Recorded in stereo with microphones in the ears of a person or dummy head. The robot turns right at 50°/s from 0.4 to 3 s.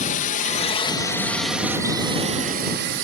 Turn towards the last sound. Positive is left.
turn(degrees=-60)  # may be behind; listen again after turning